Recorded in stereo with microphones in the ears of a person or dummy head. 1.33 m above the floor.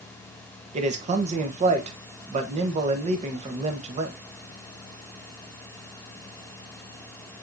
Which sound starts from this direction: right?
A man speaking, at 0.7 s.